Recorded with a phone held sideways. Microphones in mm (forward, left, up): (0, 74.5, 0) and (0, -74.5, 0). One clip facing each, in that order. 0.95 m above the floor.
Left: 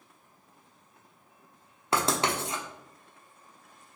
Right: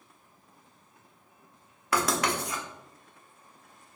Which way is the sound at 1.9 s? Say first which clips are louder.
Even; 25° left (ahead or behind).